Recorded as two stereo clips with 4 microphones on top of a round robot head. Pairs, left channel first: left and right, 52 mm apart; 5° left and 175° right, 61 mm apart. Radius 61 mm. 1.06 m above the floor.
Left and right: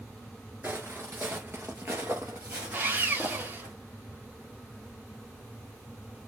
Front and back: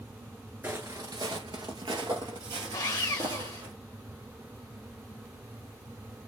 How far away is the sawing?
About 1.3 m.